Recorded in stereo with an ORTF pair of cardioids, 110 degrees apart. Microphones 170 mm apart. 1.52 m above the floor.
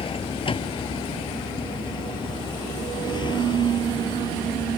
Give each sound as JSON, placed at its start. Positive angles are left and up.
{"t": 0.0, "sound": "a vehicle", "azimuth_deg": 30}